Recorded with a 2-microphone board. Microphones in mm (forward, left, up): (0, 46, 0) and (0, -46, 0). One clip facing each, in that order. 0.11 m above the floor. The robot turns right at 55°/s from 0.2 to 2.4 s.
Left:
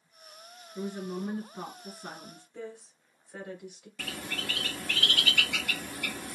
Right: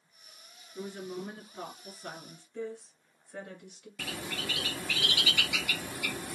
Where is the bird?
5° right (ahead or behind), 0.5 m.